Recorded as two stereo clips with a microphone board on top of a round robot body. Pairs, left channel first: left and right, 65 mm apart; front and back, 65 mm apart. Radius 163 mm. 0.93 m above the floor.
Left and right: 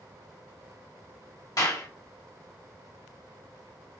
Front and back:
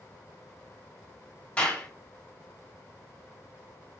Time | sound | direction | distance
1.6 | a clap | 70° left | 1.2 m